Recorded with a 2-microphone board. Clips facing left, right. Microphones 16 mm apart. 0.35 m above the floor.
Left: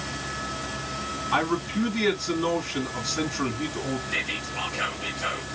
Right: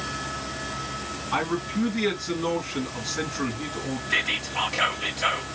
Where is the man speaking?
10° left (ahead or behind), 3 m.